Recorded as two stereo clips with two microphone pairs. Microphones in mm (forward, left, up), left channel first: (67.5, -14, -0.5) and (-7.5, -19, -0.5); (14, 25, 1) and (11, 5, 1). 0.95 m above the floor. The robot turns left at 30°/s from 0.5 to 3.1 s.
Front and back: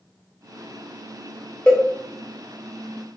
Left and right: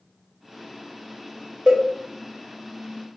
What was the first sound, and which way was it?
A cowbell, 70° right.